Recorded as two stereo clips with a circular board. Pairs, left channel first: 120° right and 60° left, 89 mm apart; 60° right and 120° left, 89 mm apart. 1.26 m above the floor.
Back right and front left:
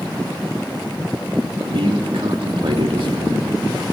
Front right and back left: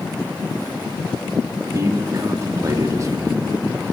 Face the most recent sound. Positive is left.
turn(degrees=70)